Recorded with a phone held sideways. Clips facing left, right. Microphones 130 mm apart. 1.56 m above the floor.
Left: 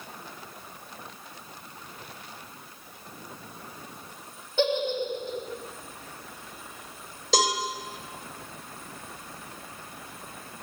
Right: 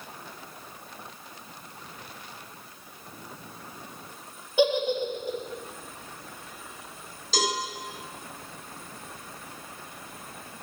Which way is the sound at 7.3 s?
80° left.